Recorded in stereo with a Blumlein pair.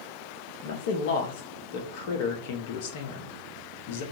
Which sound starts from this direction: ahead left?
A man speaking, at 0.6 s.